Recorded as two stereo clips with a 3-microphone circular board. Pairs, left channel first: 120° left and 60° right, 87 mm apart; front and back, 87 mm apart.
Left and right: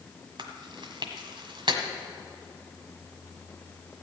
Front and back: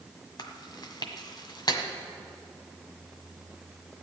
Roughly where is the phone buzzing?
I don't hear a phone buzzing.